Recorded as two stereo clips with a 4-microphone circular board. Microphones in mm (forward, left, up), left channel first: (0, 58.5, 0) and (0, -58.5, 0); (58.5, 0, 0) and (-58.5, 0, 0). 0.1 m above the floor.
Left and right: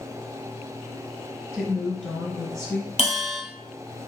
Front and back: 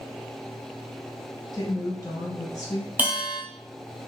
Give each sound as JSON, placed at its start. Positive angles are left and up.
{"t": 1.5, "sound": "a woman speaking", "azimuth_deg": 5, "distance_m": 1.2}
{"t": 3.0, "sound": "a bell", "azimuth_deg": 105, "distance_m": 0.8}